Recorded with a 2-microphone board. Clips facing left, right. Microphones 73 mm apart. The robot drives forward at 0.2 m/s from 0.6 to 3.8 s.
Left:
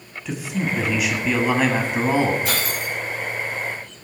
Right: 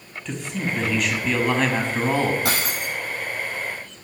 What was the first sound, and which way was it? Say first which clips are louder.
A man speaking: left 3 dB; 5° left (ahead or behind).